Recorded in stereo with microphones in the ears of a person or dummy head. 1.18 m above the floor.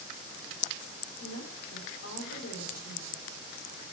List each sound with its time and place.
1.2 s a woman speaking: 80° left, 3.5 m